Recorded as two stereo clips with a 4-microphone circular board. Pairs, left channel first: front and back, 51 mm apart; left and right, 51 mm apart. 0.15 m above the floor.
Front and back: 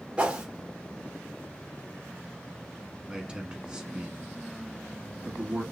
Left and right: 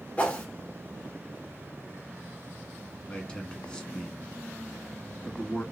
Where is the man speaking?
135° left, 1.1 m.